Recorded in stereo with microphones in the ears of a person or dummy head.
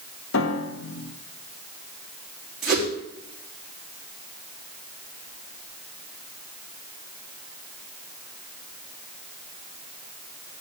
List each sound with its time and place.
0.3 s a piano: 70° left (ahead or behind), 0.8 m
2.6 s a whoosh: centre (ahead or behind), 3 m